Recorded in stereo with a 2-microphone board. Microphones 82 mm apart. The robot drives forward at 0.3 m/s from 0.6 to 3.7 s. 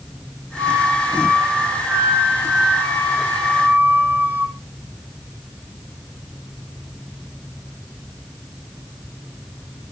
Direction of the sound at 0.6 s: 35° right (ahead or behind).